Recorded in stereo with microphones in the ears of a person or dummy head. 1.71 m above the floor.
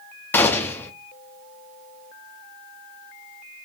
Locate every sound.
0.3 s a gunshot: 15° left (ahead or behind), 0.6 m